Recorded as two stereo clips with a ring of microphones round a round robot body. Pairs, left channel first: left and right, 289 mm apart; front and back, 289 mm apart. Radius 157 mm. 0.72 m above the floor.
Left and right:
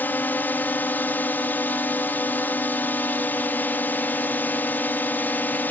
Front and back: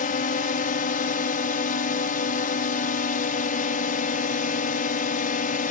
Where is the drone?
15° left.